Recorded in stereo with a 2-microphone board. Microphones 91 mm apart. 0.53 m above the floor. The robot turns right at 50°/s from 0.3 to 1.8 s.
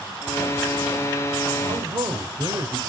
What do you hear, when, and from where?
1.7 s a man speaking: 45° right (ahead or behind), 1.9 m; by 2.8 s 50° right (ahead or behind), 1.9 m